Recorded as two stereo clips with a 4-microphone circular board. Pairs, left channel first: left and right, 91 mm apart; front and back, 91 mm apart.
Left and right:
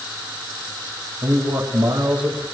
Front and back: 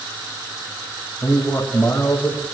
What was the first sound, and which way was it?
A man speaking, 70° right.